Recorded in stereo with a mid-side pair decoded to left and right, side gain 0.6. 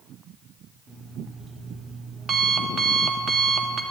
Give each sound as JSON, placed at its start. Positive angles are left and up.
{"t": 0.9, "sound": "an alarm clock", "azimuth_deg": -40, "distance_m": 1.5}